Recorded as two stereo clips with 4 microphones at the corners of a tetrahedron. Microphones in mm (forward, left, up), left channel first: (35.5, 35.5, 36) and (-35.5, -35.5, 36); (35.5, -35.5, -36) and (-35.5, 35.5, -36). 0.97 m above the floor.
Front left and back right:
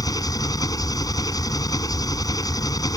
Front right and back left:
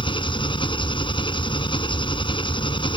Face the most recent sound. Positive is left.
turn(degrees=-10)